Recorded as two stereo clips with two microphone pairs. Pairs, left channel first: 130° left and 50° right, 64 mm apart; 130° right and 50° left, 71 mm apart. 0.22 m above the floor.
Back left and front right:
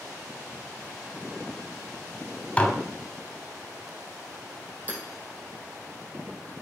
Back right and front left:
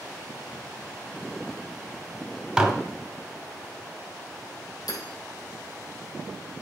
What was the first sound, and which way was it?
Dishes clattering, 105° left.